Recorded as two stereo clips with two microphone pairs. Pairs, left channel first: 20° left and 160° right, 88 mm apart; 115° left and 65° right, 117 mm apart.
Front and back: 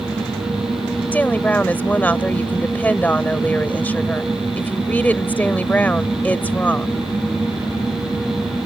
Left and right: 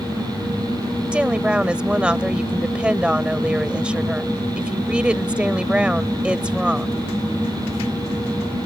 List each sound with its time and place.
1.1 s a woman speaking: straight ahead